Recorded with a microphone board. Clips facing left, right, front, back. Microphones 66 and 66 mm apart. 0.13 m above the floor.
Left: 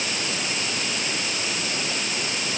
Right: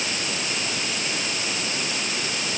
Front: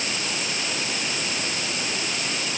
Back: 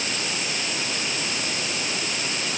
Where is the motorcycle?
No motorcycle in this recording.